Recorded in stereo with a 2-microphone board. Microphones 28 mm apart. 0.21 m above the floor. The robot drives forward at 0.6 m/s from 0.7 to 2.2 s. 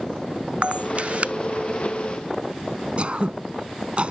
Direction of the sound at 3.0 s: 45° right (ahead or behind).